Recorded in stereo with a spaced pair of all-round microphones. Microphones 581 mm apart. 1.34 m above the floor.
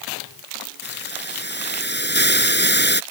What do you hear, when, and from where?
0.8 s a hiss: 15° left (ahead or behind)